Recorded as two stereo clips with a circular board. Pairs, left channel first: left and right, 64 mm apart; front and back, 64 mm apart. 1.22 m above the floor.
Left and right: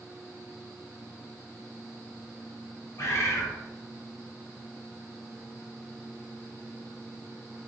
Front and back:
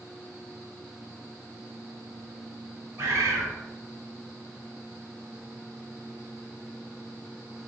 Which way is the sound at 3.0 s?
130° left.